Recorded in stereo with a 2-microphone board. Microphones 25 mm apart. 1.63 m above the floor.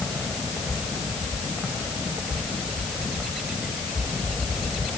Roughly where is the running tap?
I don't hear a running tap.